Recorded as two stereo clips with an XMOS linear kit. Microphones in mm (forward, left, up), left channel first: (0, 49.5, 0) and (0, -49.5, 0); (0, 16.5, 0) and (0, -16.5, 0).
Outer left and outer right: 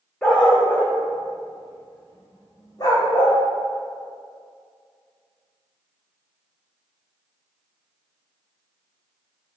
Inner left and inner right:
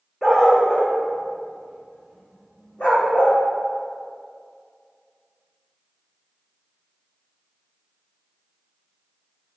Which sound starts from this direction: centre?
A dog barking, at 0.2 s.